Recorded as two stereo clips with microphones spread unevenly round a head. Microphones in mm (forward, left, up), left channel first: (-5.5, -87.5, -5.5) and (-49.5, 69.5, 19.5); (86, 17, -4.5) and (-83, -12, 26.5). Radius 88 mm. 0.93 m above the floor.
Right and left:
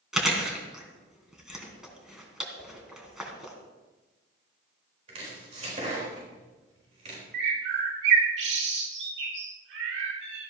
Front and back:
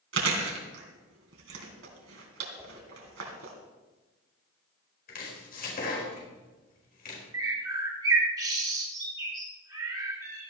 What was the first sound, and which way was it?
Chewing, 170° right.